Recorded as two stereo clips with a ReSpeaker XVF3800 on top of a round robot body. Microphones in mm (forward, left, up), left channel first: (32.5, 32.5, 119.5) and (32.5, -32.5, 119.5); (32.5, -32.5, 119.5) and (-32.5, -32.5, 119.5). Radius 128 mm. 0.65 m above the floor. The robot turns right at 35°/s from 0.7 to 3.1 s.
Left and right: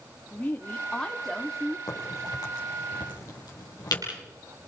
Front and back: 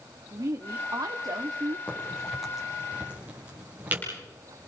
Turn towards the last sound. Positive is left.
turn(degrees=115)